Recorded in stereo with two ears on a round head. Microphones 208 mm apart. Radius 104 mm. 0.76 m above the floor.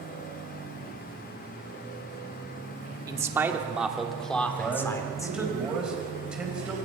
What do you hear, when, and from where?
3.1 s a man speaking: 15° right (ahead or behind), 1.8 m; by 5.5 s 15° left (ahead or behind), 2.5 m
4.5 s a man speaking: 5° right (ahead or behind), 4.5 m